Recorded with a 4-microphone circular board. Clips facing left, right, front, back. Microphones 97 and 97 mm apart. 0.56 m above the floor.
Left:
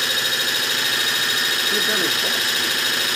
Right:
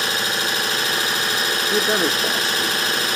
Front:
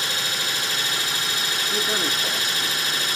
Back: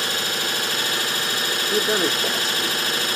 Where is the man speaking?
140° right, 0.8 m.